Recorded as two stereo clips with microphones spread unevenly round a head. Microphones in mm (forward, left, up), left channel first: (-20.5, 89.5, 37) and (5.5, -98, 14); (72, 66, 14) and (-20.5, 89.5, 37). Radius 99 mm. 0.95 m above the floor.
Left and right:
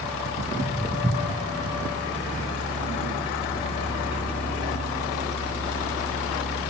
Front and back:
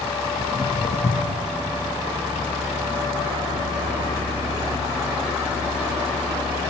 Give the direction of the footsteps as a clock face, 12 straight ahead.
11 o'clock.